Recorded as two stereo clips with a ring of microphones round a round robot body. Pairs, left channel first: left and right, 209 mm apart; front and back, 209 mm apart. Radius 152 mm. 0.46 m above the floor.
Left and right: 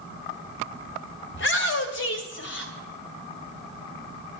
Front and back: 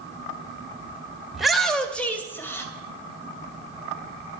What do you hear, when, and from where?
1.3 s a shout: 90° left, 2 m; by 2.7 s 75° left, 3 m